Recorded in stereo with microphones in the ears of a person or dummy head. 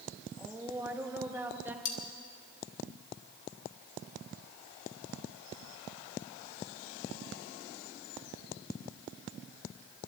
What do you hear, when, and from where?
0.4 s a woman speaking: 5° right (ahead or behind), 3 m
1.9 s cutlery clinking: 40° left (ahead or behind), 1.8 m